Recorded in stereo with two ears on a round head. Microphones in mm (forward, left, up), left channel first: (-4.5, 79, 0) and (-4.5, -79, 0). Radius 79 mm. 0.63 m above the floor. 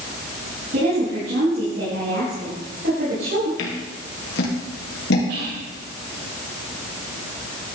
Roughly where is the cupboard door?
No cupboard door in this recording.